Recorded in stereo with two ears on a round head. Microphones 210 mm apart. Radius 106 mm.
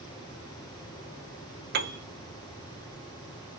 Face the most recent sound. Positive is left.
turn(degrees=-45)  # may be behind; listen again after turning